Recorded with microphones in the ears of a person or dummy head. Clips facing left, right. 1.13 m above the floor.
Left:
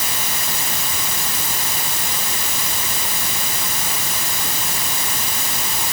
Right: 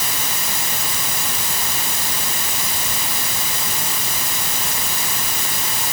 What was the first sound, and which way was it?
Only background noise.